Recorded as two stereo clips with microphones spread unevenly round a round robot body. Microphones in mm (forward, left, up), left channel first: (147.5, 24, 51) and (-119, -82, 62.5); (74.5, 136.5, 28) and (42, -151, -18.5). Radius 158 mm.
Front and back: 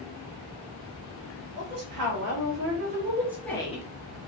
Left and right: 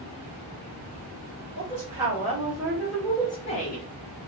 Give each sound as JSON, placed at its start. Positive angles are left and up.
{"t": 1.6, "sound": "a woman speaking", "azimuth_deg": -155, "distance_m": 1.6}